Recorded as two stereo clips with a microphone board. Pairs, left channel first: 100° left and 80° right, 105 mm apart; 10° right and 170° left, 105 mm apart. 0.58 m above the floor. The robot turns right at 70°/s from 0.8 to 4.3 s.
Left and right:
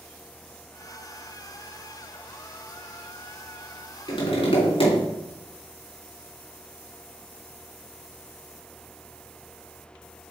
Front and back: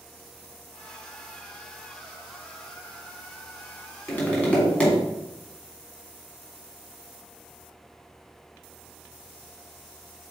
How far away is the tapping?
About 3 m.